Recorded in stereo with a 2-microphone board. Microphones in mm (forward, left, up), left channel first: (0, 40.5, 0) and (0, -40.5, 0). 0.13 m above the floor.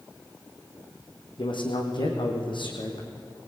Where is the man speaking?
75° left (ahead or behind), 5 m.